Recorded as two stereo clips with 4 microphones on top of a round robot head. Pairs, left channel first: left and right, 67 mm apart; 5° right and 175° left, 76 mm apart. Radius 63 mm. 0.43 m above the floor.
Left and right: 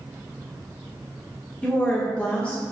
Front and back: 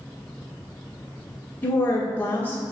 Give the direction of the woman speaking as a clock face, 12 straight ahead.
11 o'clock.